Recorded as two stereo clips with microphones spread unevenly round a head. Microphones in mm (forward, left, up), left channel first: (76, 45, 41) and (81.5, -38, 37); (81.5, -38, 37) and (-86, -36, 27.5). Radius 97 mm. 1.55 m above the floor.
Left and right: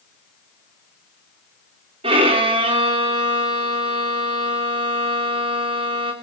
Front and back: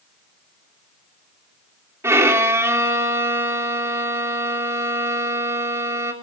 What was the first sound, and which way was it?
A violin, 105° right.